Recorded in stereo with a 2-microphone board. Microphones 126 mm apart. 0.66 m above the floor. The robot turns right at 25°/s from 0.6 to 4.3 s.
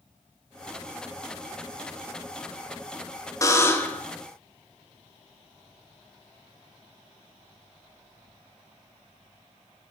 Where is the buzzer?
25° left (ahead or behind), 0.8 m; by 4.1 s 10° left (ahead or behind), 0.8 m.